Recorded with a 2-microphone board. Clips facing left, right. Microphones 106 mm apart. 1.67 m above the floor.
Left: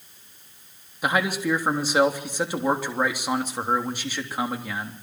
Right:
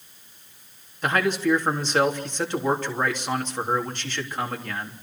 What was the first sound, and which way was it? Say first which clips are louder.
A man speaking: right 2 dB; 10° left (ahead or behind).